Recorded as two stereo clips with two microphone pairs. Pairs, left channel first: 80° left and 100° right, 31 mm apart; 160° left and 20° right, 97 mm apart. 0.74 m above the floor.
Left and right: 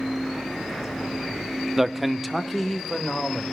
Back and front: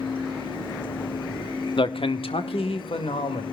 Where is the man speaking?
Straight behind, 0.9 m; by 3.4 s 165° left, 2.5 m.